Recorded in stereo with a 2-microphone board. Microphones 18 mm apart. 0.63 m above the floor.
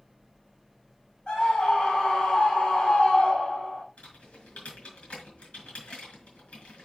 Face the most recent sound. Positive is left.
turn(degrees=85)